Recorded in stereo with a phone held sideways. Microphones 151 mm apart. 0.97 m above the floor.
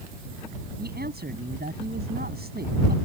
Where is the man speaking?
80° right.